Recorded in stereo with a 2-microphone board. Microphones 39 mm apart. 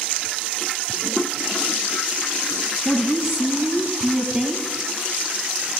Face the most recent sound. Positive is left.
turn(degrees=-15)  # may be behind; listen again after turning